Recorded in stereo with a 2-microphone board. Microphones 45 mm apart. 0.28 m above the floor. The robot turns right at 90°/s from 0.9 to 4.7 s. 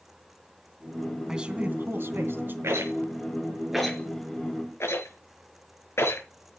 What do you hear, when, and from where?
1.3 s a man speaking: 170° right, 2.5 m; by 2.5 s 55° right, 2.5 m
2.6 s a rattle: 70° right (ahead or behind), 5.5 m; by 6.2 s 70° left (ahead or behind), 5.5 m